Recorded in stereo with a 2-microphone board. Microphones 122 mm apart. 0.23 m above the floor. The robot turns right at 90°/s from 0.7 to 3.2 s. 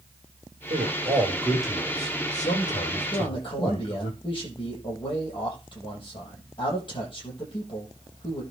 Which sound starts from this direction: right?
A man speaking, at 0.7 s.